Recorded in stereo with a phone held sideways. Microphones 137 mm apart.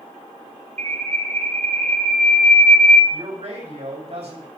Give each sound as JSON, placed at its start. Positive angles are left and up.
{"t": 0.8, "sound": "a bird", "side_deg": -60, "distance_m": 0.7}
{"t": 3.1, "sound": "a man speaking", "side_deg": -55, "distance_m": 5.5}